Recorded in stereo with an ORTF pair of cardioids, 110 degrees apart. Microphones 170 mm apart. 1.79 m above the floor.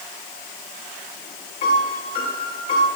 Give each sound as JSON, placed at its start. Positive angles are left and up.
{"t": 1.6, "sound": "a piano", "azimuth_deg": 55, "distance_m": 2.5}